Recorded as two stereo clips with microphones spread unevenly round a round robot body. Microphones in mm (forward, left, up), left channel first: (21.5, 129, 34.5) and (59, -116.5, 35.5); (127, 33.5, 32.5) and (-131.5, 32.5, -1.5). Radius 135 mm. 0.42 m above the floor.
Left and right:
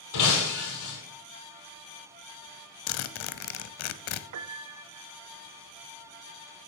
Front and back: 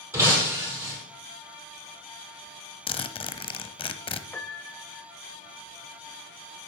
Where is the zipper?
70° left, 0.7 m.